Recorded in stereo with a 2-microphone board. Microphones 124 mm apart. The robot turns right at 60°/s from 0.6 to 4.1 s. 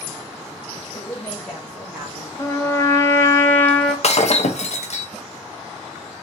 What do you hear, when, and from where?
0.9 s a woman speaking: 135° left, 1.0 m; by 2.3 s 145° right, 1.0 m
2.4 s a trumpet: 20° left (ahead or behind), 0.7 m; by 3.9 s 10° left (ahead or behind), 0.7 m
4.0 s breaking glass: 60° left (ahead or behind), 0.6 m